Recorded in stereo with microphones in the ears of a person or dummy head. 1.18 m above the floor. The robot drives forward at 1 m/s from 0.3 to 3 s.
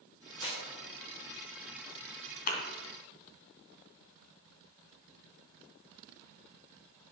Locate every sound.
0.4 s a clap: 25° left (ahead or behind), 4 m; by 0.6 s 30° left (ahead or behind), 4 m
2.5 s a thud: 50° left (ahead or behind), 2 m; by 2.6 s 55° left (ahead or behind), 2 m